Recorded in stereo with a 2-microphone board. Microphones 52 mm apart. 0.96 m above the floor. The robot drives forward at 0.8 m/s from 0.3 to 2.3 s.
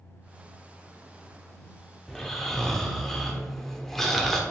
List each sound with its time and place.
2.1 s snoring: 10° left (ahead or behind), 0.8 m; by 4.4 s 5° left (ahead or behind), 0.9 m